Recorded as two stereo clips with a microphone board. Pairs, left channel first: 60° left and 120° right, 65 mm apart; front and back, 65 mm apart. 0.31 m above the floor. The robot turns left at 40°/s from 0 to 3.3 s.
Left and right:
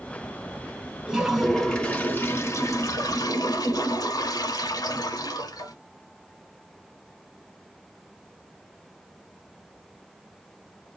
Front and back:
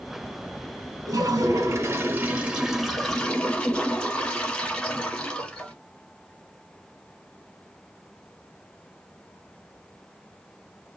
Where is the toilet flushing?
165° left, 0.8 m; by 5.8 s 75° left, 0.8 m.